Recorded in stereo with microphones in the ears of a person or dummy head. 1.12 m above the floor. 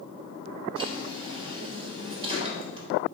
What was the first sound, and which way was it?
A drawer, 30° right (ahead or behind).